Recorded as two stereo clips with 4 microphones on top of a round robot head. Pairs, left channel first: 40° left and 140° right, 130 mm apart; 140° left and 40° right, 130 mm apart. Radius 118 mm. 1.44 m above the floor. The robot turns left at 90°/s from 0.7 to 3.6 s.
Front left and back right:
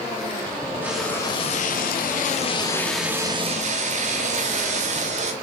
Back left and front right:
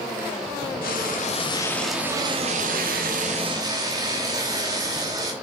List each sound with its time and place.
0.8 s frying: 145° left, 1.5 m; by 5.3 s 105° right, 1.5 m